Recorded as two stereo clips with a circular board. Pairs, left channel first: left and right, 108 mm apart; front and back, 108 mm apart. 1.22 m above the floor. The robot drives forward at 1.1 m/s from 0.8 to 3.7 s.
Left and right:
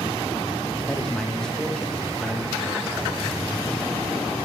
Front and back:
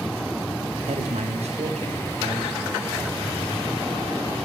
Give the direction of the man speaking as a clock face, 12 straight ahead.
6 o'clock.